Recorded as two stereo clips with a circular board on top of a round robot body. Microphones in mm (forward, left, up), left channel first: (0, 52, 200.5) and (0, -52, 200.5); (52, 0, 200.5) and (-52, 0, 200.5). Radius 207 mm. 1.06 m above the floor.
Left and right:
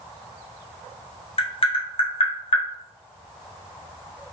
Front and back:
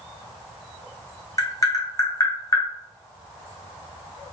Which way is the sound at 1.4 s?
60° left.